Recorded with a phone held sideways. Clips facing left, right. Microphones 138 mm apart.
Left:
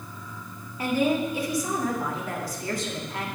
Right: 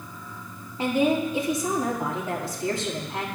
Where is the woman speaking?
25° right (ahead or behind), 2 m.